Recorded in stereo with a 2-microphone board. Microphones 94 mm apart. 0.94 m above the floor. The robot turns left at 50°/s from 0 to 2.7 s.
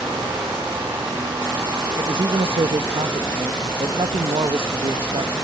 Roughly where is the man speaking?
Ahead right.